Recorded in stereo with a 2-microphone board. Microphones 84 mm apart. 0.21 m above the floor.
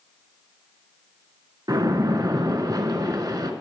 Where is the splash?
50° right (ahead or behind), 0.6 m.